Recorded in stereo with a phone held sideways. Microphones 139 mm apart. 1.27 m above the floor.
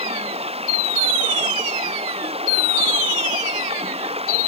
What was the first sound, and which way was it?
Running water, 45° right (ahead or behind).